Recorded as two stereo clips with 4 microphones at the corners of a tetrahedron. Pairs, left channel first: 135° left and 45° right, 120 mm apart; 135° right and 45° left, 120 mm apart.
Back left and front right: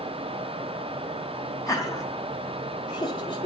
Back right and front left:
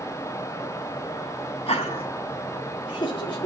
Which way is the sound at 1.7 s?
165° right.